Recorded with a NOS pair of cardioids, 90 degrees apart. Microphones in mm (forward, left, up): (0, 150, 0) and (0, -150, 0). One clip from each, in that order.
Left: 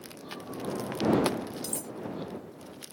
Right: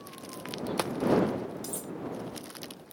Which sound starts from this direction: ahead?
Cutlery clinking, at 1.6 s.